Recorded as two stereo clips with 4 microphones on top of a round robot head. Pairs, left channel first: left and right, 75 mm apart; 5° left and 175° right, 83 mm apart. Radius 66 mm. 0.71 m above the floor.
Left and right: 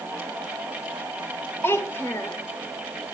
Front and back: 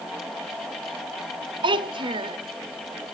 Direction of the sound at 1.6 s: 160° left.